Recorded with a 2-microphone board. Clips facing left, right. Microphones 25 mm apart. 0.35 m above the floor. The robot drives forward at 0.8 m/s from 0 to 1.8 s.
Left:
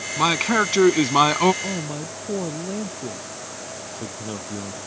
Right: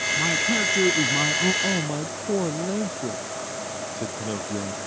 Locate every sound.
0.2 s a man speaking: 50° left (ahead or behind); by 1.5 s 65° left (ahead or behind)
1.6 s a man speaking: 10° right (ahead or behind)